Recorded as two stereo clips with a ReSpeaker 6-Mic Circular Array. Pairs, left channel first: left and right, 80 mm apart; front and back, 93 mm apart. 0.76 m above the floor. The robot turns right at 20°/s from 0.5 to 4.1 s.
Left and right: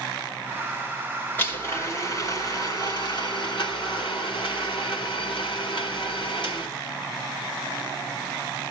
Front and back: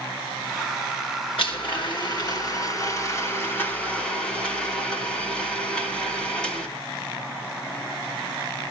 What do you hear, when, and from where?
1.4 s a blender: 25° left, 4.5 m; by 6.7 s 80° left, 4.5 m